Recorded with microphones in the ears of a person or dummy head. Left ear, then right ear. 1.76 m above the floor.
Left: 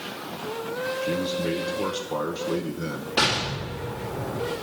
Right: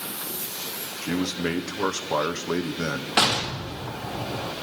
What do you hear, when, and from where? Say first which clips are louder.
1.0 s a man speaking: right 2 dB; 50° right (ahead or behind), 1.1 m
3.2 s an explosion: right 1 dB; 60° right (ahead or behind), 2.5 m